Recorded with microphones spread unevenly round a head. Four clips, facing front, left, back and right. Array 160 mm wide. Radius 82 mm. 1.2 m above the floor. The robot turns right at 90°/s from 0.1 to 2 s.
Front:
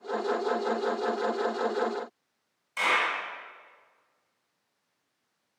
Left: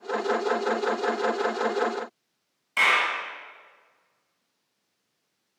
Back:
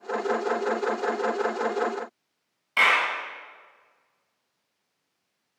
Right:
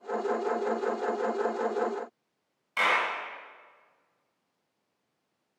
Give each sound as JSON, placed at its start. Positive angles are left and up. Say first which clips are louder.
{"t": 2.8, "sound": "a clap", "louder": "left 3 dB, back 4 dB", "azimuth_deg": 155, "distance_m": 7.0}